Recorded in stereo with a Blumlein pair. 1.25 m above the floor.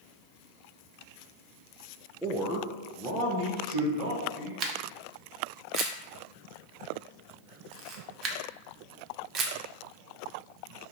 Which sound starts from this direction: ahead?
A man speaking, at 2.2 s.